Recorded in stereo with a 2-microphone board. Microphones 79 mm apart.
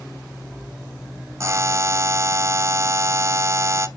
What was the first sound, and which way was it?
A buzzer, 40° right (ahead or behind).